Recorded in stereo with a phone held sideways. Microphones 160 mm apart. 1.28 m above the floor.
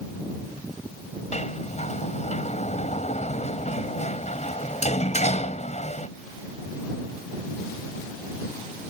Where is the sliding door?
45° left (ahead or behind).